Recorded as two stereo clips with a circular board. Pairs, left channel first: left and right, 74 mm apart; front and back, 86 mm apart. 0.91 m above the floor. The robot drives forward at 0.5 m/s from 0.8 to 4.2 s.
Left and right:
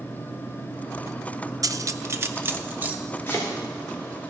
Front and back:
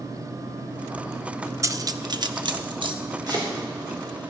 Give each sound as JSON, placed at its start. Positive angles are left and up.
{"t": 1.6, "sound": "cutlery clinking", "azimuth_deg": -130, "distance_m": 0.5}
{"t": 3.3, "sound": "chopping", "azimuth_deg": 145, "distance_m": 3.5}